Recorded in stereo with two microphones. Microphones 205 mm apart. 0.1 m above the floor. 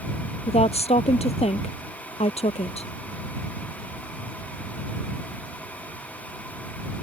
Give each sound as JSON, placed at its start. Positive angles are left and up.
{"t": 0.5, "sound": "a woman speaking", "side_deg": 30}